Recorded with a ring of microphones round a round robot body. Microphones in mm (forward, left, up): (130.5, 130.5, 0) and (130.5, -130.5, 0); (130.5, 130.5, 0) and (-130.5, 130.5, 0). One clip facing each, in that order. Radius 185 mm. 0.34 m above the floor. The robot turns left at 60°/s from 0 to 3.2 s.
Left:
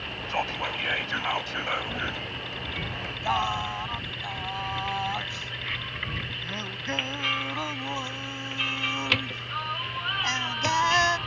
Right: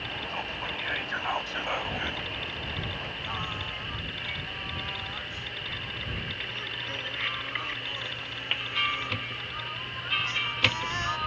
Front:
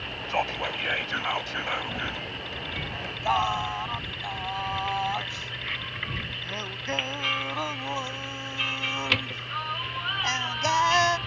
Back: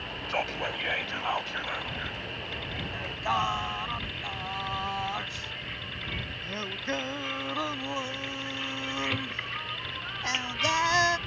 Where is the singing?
125° left; by 11.2 s 110° left.